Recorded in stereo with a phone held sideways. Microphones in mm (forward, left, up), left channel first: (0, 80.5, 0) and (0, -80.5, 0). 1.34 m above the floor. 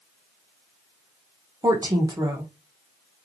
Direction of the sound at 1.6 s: 25° right (ahead or behind).